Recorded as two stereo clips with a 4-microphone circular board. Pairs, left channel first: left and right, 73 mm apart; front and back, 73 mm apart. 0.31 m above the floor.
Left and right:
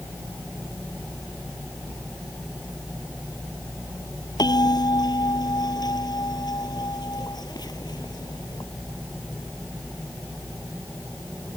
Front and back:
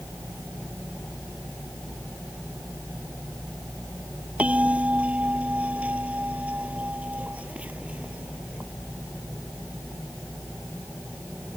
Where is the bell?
110° left.